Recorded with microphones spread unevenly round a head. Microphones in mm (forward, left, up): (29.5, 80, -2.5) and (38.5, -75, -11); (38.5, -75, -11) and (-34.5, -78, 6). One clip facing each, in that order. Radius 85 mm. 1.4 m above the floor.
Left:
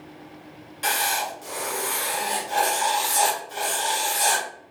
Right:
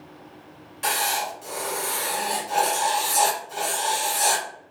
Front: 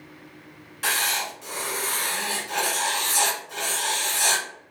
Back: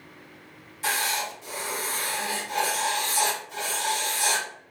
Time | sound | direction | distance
0.8 | writing | 5° right | 1.7 m